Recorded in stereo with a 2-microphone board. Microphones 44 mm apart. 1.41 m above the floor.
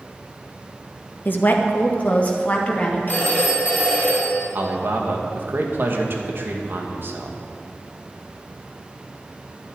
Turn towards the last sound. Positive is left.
turn(degrees=-55)  # may be behind; listen again after turning